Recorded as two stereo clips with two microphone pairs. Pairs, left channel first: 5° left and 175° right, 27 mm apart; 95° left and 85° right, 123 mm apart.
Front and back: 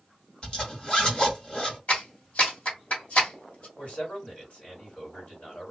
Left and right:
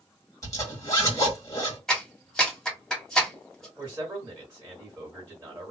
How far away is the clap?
About 1.6 m.